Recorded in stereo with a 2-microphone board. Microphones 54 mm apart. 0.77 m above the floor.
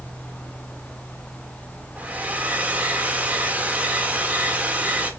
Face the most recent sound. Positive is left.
turn(degrees=-30)  # may be behind; listen again after turning